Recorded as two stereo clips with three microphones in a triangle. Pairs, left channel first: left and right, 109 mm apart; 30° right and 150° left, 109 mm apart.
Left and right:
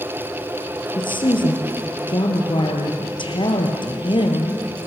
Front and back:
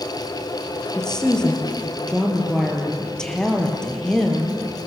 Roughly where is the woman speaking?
Ahead left.